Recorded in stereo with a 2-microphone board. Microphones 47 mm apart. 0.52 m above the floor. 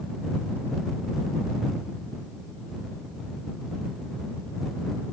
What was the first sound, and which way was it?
Only background noise.